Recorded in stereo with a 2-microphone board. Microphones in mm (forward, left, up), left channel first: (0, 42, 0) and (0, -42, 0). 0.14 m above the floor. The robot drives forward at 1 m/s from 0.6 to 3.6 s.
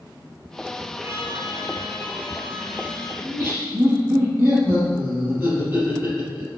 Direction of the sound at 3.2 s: 30° right (ahead or behind).